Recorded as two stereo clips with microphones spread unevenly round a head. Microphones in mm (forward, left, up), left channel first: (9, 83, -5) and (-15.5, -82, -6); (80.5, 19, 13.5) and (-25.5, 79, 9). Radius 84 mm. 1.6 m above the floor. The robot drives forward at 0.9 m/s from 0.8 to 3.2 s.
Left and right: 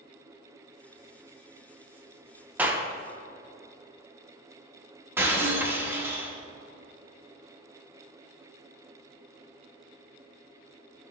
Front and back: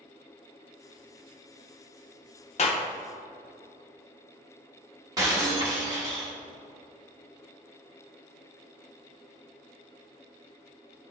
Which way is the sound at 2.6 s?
20° right.